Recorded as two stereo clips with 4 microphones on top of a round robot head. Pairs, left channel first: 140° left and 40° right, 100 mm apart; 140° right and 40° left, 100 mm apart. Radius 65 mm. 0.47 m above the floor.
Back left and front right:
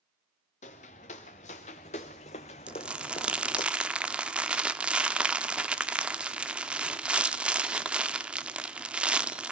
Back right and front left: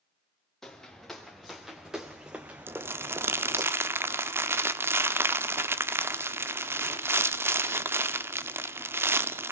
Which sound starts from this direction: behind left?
Footsteps, at 0.6 s.